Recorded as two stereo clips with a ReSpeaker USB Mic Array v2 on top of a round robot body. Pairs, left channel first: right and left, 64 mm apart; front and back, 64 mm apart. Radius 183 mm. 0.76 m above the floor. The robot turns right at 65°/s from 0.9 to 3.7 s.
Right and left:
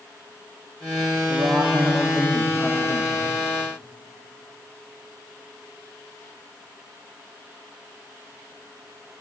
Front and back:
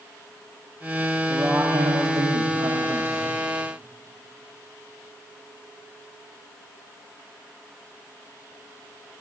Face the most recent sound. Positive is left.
turn(degrees=-85)